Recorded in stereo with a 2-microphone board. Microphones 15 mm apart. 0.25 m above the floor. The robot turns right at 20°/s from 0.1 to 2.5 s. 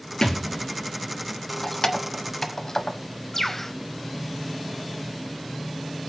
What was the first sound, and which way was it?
A thud, 50° left (ahead or behind).